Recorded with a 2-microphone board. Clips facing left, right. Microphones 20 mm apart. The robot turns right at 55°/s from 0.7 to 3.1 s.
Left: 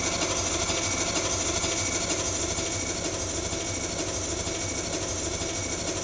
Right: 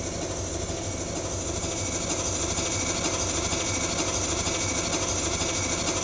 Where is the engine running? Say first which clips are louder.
Left 4 dB; 110° left, 1.5 m; by 6.0 s 115° right, 1.5 m.